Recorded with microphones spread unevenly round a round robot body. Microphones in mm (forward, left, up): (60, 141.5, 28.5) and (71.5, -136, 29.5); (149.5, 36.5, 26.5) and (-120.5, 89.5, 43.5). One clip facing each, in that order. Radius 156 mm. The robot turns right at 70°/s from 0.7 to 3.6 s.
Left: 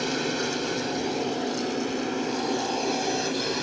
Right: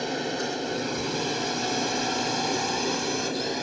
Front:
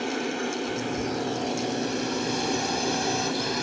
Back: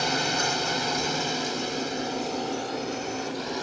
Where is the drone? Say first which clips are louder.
Left 2 dB, front 1 dB; 170° left; by 3.6 s 25° left.